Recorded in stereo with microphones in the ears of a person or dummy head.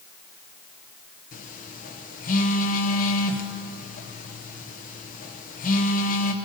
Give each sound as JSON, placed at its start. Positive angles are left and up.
{"t": 1.3, "sound": "a phone buzzing", "side_deg": 45, "distance_m": 0.7}